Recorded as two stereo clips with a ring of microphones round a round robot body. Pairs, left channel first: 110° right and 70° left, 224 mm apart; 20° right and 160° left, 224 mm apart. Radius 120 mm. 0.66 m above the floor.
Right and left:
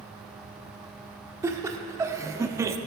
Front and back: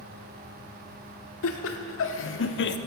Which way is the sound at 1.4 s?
10° right.